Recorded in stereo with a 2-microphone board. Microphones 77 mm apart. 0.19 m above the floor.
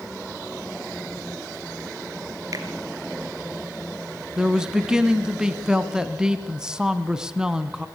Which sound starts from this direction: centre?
A man speaking, at 4.4 s.